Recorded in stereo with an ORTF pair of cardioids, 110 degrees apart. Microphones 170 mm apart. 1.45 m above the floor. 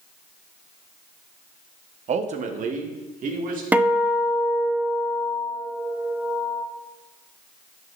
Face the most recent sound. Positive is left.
turn(degrees=-10)